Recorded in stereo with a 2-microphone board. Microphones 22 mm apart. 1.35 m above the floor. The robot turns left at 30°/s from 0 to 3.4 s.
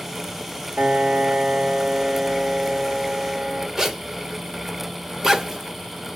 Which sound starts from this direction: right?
A piano, at 0.8 s.